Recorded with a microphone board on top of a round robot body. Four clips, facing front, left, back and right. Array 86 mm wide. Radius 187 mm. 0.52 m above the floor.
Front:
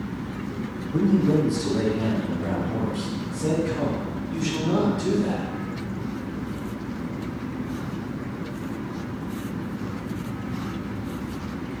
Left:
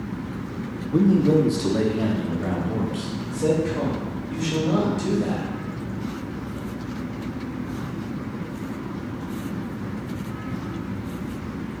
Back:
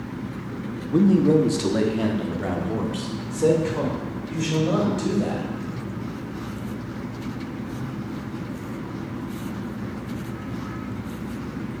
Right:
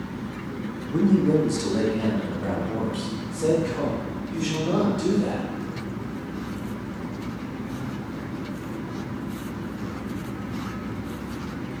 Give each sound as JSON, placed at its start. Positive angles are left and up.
{"t": 0.9, "sound": "a man speaking", "azimuth_deg": 160, "distance_m": 1.1}